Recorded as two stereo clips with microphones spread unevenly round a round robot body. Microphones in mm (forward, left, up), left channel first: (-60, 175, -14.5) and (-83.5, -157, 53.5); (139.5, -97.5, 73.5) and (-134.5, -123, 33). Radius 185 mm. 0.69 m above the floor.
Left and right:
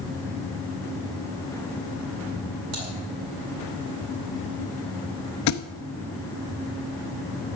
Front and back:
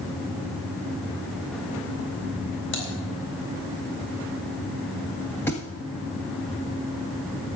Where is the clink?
I don't hear a clink.